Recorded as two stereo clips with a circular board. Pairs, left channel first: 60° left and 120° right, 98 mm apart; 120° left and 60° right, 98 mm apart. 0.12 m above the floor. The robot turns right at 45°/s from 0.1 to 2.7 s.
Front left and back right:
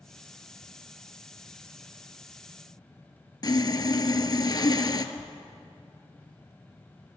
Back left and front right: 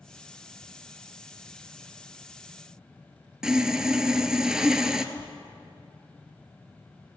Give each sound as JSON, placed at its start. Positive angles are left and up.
{"t": 3.4, "sound": "sawing", "azimuth_deg": 25, "distance_m": 0.6}
{"t": 5.2, "sound": "tearing paper", "azimuth_deg": -50, "distance_m": 1.6}